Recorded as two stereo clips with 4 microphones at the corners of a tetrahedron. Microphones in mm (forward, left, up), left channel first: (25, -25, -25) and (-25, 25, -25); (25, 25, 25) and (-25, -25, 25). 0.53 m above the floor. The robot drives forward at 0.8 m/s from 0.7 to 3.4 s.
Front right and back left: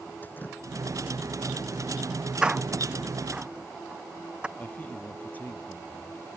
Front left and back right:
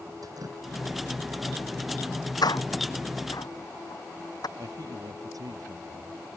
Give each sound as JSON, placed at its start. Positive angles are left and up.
{"t": 0.2, "sound": "dripping", "azimuth_deg": -105}
{"t": 2.4, "sound": "a door slam", "azimuth_deg": 60}
{"t": 4.6, "sound": "a man speaking", "azimuth_deg": -110}